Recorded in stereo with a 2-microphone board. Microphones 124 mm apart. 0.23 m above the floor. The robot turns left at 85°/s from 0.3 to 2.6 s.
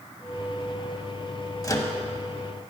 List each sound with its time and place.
1.6 s a microwave: 30° left (ahead or behind), 0.8 m; by 1.9 s 25° left (ahead or behind), 0.8 m